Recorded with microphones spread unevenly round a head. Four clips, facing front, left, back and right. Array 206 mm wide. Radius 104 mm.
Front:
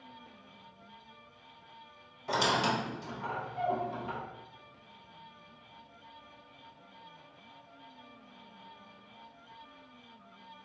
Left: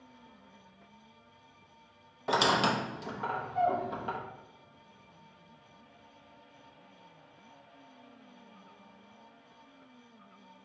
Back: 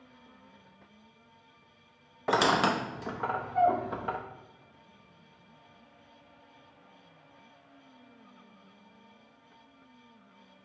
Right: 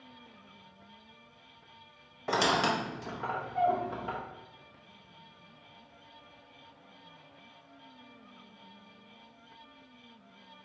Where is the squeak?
175° right, 0.5 m.